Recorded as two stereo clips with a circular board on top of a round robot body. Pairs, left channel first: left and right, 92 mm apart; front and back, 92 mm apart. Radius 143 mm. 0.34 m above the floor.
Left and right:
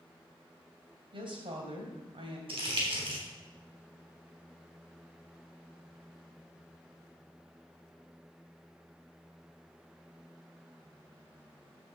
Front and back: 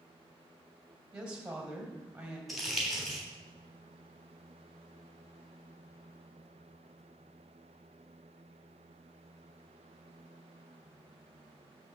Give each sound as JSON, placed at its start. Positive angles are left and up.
{"t": 1.1, "sound": "a woman speaking", "azimuth_deg": -100, "distance_m": 3.0}
{"t": 2.5, "sound": "crumpling", "azimuth_deg": -90, "distance_m": 3.5}